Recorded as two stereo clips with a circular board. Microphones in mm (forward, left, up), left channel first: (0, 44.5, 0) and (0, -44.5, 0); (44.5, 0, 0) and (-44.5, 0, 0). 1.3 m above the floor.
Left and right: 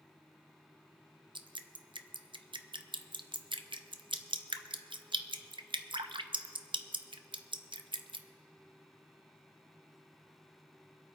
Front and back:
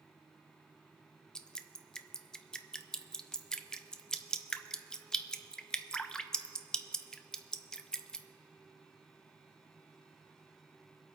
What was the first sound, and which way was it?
Dripping, 80° right.